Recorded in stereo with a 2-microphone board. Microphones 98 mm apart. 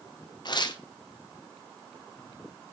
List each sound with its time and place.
0.5 s tearing paper: 45° left (ahead or behind), 0.6 m